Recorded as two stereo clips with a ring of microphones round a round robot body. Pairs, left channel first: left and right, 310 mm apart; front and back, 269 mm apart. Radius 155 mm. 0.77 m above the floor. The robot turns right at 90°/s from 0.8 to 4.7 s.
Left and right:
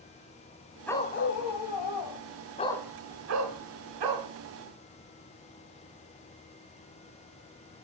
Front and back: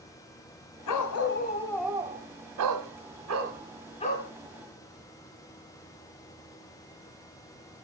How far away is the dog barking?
About 1.9 m.